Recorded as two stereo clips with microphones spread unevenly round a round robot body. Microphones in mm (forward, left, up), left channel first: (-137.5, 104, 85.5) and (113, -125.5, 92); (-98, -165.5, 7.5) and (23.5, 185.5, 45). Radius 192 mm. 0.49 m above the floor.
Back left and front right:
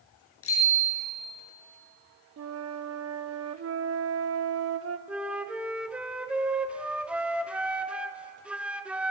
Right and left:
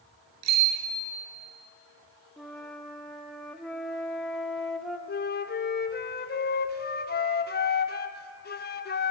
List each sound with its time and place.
0.4 s a bicycle bell: 85° left, 6.5 m
2.4 s a flute: 30° right, 0.8 m
5.1 s a flute: 130° right, 1.0 m